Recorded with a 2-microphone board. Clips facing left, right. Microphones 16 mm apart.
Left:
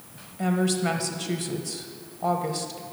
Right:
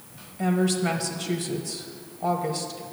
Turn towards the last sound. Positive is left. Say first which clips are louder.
# right 1 dB
turn(degrees=5)  # may be behind; listen again after turning